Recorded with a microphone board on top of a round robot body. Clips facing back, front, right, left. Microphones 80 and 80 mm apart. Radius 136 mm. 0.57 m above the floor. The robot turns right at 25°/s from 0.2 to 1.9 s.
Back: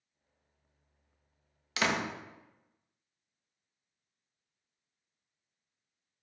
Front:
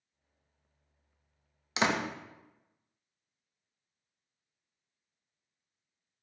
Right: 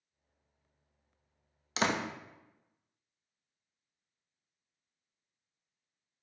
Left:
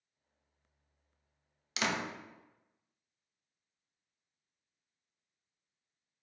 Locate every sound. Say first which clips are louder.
1.8 s a door slam: front 2 dB, right 3 dB; 55° right, 0.5 m